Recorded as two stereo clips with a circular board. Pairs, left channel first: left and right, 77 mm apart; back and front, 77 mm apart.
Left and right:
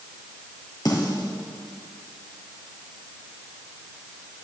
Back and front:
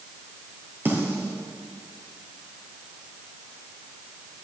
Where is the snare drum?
60° left, 2.5 m.